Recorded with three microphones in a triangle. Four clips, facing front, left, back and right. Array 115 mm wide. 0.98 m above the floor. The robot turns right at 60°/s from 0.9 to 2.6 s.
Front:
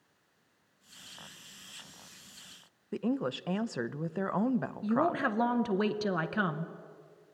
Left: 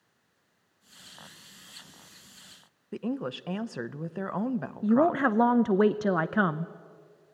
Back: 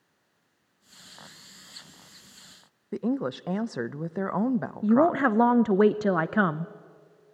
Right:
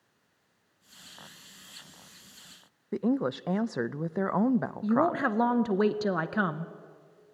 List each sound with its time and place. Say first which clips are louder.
2.9 s a woman speaking: right 5 dB, back 4 dB; 125° right, 0.5 m
4.8 s a woman speaking: left 5 dB, back 9 dB; 155° left, 0.7 m